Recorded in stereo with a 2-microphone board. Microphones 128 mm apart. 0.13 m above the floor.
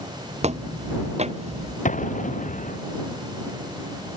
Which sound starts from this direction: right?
Footsteps, at 0.4 s.